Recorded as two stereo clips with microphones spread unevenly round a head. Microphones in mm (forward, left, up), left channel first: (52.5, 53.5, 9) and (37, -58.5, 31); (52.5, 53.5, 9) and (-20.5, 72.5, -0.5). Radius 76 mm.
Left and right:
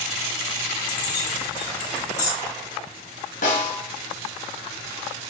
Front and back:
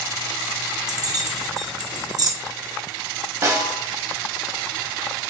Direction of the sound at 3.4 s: 120° left.